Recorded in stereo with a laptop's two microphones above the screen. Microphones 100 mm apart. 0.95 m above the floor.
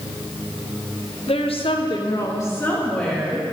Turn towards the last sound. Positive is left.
turn(degrees=5)  # may be behind; listen again after turning